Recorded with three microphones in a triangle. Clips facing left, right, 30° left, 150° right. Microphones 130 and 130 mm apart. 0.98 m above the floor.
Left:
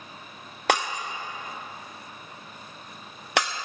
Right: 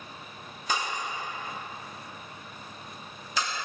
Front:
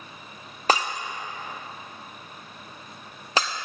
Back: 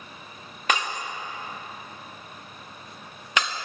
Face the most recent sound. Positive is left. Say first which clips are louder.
# left 5 dB, front 3 dB
turn(degrees=85)